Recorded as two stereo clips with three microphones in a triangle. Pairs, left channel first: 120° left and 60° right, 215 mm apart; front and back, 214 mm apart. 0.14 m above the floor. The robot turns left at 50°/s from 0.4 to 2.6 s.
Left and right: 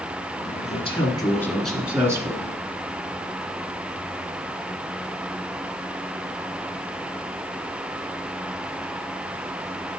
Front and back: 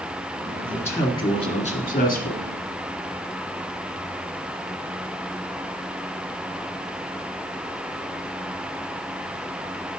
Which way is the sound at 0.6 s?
85° left.